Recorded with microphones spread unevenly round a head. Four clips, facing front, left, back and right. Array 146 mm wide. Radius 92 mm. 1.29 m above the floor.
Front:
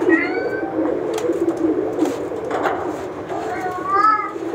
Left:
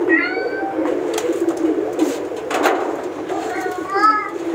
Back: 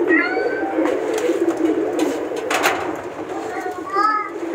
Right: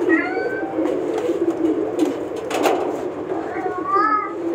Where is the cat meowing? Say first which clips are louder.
Left 1 dB, even; 105° right, 3.5 m; by 4.3 s 10° right, 4 m.